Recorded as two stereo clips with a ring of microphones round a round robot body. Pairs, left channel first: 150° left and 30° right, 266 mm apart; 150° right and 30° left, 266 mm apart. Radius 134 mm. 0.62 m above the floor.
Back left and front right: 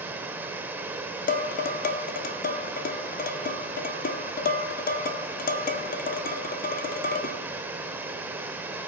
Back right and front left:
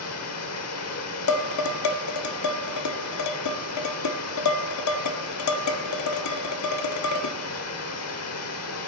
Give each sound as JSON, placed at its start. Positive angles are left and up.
{"t": 0.0, "sound": "running water", "azimuth_deg": -115, "distance_m": 1.0}
{"t": 1.3, "sound": "dishes clattering", "azimuth_deg": -155, "distance_m": 0.9}